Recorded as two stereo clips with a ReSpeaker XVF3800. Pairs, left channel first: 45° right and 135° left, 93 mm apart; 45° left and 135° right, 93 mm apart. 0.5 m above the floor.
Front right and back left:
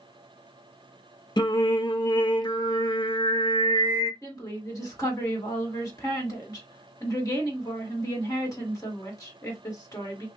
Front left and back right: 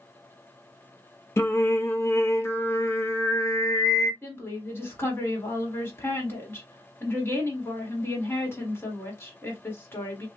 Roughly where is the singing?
Ahead.